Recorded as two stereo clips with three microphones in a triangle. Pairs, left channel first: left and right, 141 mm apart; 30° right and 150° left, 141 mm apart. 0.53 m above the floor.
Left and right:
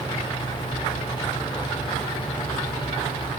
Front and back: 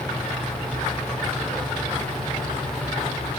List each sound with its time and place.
Only background noise.